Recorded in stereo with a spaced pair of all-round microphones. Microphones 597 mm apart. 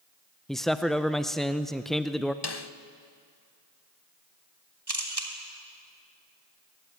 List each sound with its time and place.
0.5 s a man speaking: centre (ahead or behind), 0.6 m
2.4 s a snare drum: 40° left (ahead or behind), 1.0 m
4.9 s a camera shutter: 40° right (ahead or behind), 3 m